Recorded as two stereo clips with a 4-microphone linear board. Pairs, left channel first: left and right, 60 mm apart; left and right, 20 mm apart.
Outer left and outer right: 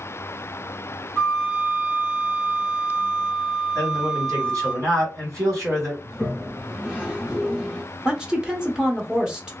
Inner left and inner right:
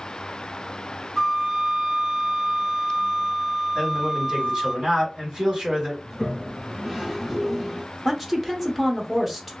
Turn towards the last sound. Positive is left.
turn(degrees=-15)  # may be behind; listen again after turning